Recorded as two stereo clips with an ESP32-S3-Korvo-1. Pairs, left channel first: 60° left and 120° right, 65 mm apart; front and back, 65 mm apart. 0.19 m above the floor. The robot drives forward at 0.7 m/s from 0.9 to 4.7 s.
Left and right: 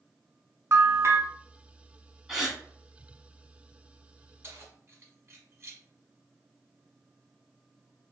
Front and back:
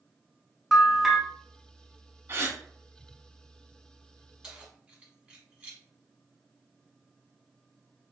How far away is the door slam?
I don't hear a door slam.